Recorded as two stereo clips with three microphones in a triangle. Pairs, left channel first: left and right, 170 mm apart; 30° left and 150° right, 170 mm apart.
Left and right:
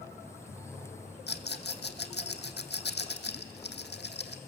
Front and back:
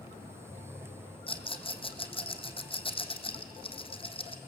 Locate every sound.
1.3 s a rattle: 85° left, 1.3 m